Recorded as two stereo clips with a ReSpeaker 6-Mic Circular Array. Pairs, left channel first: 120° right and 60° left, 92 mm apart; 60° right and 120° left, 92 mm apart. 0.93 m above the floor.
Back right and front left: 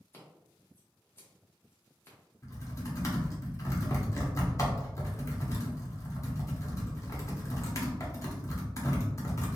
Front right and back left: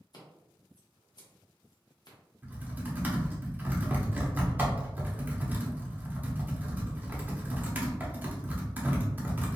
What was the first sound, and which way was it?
Scissors, 60° right.